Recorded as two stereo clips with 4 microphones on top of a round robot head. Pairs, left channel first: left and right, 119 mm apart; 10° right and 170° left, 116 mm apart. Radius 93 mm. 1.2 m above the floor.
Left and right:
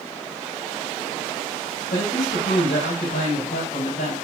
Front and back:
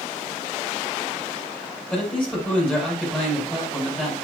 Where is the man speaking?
75° left, 5 m.